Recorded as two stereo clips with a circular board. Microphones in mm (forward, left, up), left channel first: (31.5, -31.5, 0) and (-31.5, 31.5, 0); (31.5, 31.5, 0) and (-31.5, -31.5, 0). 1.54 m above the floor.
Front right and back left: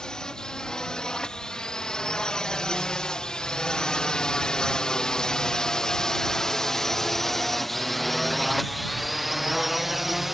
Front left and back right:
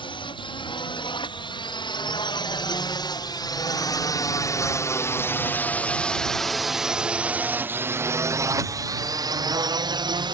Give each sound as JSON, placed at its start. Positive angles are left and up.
{"t": 0.0, "sound": "a drone", "azimuth_deg": 35}